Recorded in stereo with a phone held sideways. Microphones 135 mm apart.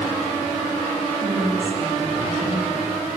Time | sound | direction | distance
1.2 | a woman speaking | 85° right | 6.5 m